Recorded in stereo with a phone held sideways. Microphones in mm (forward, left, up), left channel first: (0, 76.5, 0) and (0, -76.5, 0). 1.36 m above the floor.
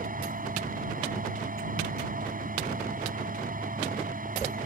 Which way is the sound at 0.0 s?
65° right (ahead or behind).